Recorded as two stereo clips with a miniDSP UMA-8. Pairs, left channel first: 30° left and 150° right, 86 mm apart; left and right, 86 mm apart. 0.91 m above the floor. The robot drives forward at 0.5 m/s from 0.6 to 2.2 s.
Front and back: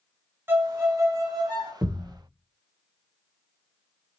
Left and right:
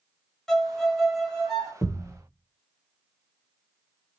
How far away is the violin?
About 0.7 m.